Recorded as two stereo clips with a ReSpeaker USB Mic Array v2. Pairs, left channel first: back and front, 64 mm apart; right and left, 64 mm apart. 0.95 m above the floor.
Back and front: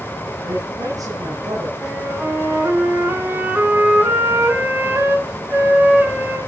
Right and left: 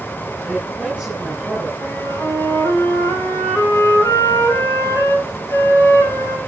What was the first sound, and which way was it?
A woman speaking, straight ahead.